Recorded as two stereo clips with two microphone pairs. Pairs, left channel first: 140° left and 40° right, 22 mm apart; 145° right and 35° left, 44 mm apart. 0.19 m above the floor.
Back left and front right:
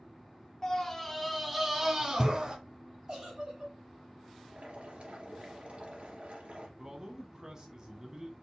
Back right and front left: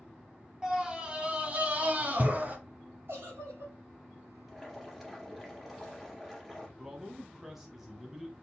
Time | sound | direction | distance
0.6 | a scream | 95° left | 1.1 m
3.1 | a giggle | 20° left | 3 m
4.5 | boiling | 50° right | 2 m
6.8 | a man speaking | 45° right | 1.2 m